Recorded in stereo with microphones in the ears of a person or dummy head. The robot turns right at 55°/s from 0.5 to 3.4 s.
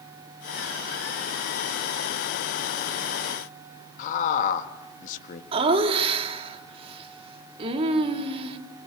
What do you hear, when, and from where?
4.0 s a man speaking: 50° left (ahead or behind), 2.0 m
5.5 s laughter: 30° right (ahead or behind), 3 m